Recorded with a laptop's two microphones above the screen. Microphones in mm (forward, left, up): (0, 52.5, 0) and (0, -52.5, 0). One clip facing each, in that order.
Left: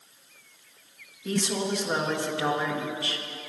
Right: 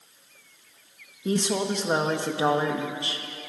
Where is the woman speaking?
25° right (ahead or behind), 1.5 m.